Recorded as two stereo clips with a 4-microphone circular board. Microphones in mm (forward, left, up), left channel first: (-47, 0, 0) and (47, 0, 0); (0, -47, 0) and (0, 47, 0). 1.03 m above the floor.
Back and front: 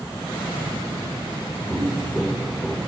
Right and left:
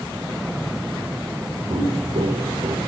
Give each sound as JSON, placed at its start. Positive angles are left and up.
{"t": 1.7, "sound": "footsteps", "azimuth_deg": 110, "distance_m": 4.5}